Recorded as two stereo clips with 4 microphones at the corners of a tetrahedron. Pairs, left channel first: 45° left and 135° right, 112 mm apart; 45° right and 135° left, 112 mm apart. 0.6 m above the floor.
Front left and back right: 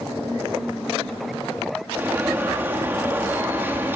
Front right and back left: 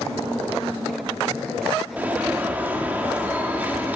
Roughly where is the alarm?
Behind.